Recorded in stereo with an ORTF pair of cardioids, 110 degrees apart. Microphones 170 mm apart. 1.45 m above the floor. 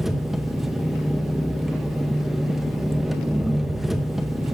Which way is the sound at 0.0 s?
Straight ahead.